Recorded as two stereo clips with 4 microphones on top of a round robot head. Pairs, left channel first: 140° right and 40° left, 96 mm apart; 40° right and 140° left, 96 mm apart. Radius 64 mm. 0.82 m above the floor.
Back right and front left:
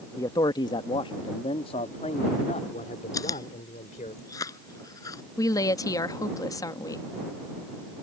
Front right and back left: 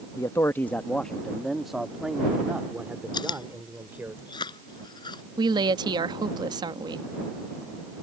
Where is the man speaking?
90° right; by 4.1 s 150° right.